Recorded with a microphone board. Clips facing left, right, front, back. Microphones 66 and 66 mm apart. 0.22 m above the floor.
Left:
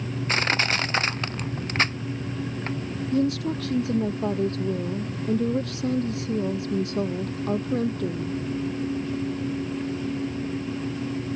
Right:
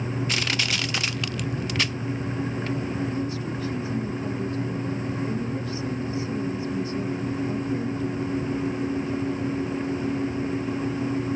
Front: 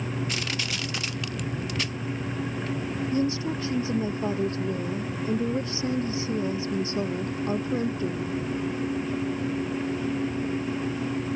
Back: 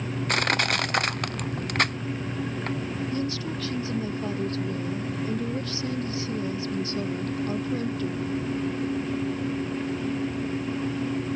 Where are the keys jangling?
No keys jangling in this recording.